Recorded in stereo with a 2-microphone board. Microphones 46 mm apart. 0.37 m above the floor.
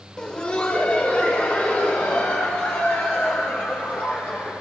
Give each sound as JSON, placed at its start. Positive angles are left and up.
{"t": 0.2, "sound": "laughter", "side_deg": 20, "distance_m": 0.9}